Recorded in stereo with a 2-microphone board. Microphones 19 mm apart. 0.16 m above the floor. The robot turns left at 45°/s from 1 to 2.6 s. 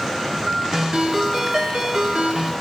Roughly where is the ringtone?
Ahead right.